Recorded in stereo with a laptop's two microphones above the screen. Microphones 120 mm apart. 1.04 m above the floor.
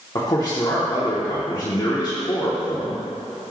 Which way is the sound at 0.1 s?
35° left (ahead or behind).